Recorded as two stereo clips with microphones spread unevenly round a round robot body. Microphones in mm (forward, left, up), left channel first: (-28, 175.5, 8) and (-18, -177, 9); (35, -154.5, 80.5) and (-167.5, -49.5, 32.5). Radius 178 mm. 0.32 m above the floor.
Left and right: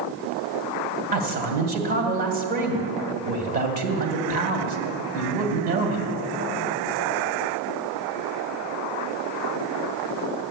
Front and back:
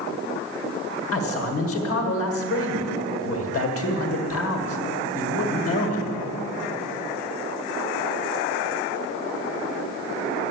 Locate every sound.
1.1 s a man speaking: 30° right, 1.9 m